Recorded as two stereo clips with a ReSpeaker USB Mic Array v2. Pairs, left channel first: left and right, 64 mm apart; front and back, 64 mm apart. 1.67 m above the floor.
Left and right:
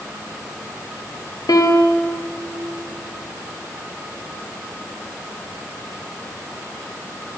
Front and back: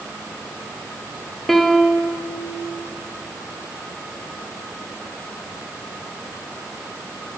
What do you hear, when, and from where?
1.5 s a piano: 85° left, 0.7 m